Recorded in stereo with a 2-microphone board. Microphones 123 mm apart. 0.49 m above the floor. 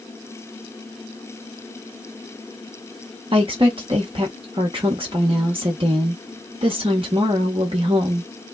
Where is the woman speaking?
45° right (ahead or behind), 0.9 m.